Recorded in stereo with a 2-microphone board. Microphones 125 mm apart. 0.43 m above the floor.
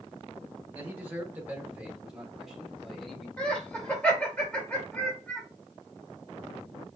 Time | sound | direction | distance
0.7 | a man speaking | 15° right (ahead or behind) | 1.4 m
3.4 | laughter | 10° left (ahead or behind) | 1.6 m